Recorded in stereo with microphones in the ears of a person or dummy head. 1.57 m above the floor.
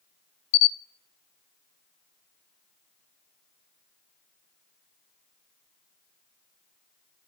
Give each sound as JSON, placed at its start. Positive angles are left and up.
{"t": 0.5, "sound": "a camera shutter", "side_deg": 55, "distance_m": 0.5}